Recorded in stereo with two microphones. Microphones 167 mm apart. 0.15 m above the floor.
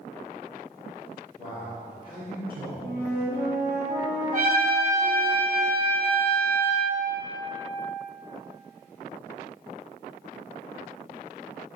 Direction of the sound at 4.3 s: 60° right (ahead or behind).